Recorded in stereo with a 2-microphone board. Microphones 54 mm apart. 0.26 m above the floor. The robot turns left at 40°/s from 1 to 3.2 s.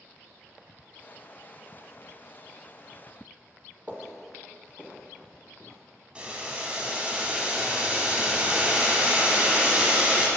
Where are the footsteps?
20° right (ahead or behind), 0.9 m; by 5.8 s 55° left (ahead or behind), 1.7 m.